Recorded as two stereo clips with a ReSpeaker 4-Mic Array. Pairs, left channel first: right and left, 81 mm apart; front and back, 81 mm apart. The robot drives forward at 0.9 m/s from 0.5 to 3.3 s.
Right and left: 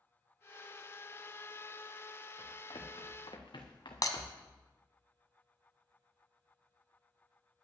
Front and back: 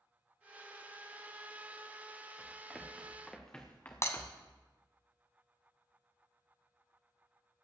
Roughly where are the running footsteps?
Right.